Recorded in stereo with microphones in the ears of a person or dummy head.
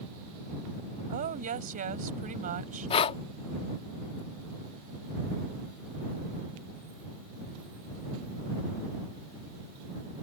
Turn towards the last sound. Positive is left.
turn(degrees=30)  # may be behind; listen again after turning